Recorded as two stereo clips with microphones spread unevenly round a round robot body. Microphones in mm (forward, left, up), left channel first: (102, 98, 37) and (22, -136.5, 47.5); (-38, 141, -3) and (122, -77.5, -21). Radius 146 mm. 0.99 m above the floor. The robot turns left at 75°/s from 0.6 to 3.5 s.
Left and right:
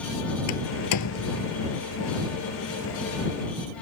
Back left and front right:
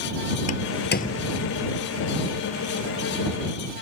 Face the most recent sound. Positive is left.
turn(degrees=-120)